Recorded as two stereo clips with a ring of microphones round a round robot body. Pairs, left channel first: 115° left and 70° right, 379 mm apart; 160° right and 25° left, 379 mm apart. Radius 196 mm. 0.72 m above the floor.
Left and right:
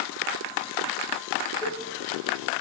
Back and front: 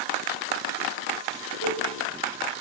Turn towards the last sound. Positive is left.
turn(degrees=25)